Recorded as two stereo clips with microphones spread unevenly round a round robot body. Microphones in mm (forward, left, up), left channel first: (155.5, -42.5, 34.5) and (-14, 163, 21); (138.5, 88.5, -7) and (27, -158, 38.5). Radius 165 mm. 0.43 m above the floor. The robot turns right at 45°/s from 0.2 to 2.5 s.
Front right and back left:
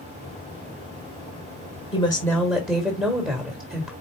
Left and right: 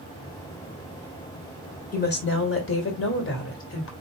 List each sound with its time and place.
1.9 s a woman speaking: 20° left, 1.6 m; by 3.9 s 50° left, 1.6 m